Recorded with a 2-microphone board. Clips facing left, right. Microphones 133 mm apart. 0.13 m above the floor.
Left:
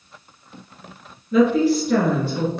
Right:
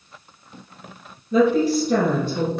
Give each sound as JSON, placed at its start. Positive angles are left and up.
{"t": 1.3, "sound": "a woman speaking", "side_deg": -30, "distance_m": 1.9}